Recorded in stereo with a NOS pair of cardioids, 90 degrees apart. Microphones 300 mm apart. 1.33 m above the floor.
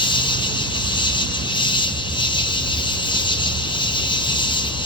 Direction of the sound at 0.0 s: 15° left.